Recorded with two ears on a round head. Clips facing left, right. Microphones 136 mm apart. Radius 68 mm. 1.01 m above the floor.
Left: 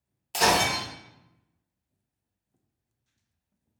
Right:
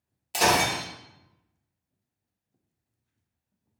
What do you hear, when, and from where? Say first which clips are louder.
0.3 s breaking glass: even; 5° right (ahead or behind), 1.1 m